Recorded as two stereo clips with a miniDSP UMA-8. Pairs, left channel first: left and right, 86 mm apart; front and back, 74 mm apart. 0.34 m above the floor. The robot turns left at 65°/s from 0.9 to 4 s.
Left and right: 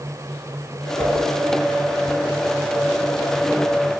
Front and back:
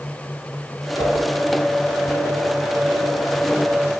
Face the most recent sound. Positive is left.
turn(degrees=170)